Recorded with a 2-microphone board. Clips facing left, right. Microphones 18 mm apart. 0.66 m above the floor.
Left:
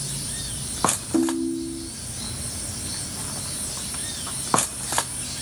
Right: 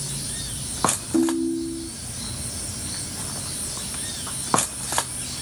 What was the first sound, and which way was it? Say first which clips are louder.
A ringtone: right 3 dB; 15° left (ahead or behind).